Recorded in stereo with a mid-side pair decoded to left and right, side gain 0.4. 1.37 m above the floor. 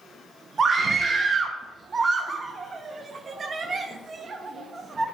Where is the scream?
50° right, 1.0 m.